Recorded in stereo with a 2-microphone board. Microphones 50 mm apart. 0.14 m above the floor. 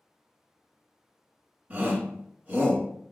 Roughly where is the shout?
Right.